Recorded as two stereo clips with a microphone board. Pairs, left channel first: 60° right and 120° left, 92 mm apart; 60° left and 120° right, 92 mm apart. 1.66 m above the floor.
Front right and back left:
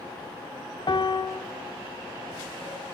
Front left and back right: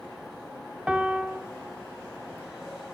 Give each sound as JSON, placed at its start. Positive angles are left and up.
{"t": 0.9, "sound": "a piano", "azimuth_deg": -45, "distance_m": 0.5}